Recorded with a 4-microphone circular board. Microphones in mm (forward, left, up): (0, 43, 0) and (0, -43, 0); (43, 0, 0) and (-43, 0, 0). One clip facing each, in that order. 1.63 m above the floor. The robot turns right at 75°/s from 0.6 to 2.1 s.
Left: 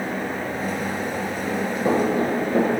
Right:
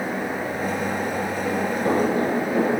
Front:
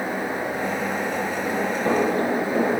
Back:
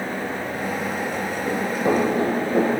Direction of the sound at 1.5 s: 130° left.